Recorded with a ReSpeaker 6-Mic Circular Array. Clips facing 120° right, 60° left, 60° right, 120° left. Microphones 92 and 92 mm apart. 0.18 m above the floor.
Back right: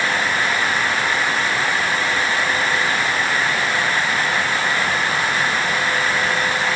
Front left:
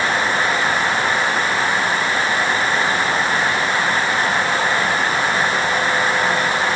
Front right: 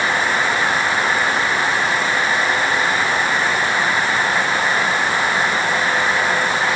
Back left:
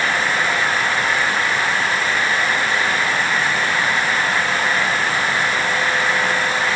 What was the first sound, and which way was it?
Only background noise.